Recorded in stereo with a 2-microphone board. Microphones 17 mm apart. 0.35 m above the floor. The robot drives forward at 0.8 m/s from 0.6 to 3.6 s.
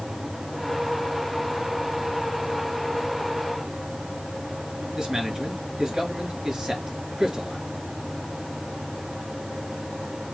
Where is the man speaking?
30° right (ahead or behind), 5 m.